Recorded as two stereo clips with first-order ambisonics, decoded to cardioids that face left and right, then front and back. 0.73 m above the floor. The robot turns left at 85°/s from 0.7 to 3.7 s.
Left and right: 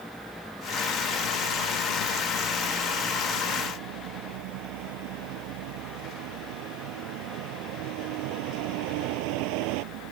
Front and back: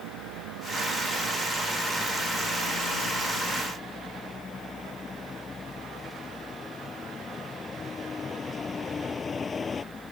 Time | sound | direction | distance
0.0 | a vehicle | straight behind | ?